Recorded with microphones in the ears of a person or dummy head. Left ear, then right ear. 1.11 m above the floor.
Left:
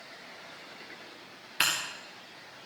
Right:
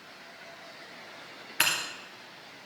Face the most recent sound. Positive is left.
turn(degrees=-10)  # may be behind; listen again after turning